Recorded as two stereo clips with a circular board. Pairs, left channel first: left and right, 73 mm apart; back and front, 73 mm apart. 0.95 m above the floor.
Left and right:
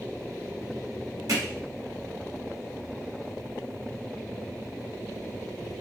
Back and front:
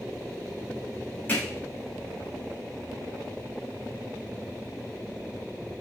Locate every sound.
1.3 s hammering: 115° right, 1.3 m